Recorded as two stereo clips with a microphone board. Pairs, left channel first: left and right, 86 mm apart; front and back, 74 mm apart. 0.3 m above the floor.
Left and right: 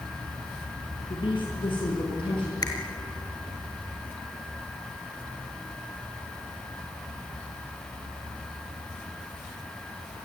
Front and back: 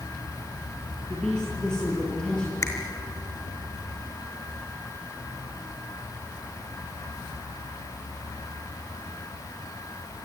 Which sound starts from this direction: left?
A woman speaking, at 1.1 s.